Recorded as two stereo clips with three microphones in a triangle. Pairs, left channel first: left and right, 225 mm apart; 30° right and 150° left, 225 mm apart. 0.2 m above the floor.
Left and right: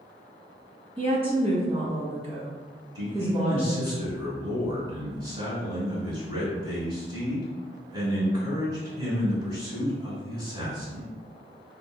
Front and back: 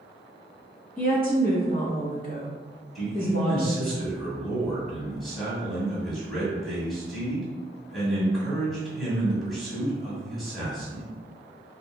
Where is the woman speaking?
40° right, 1.2 m.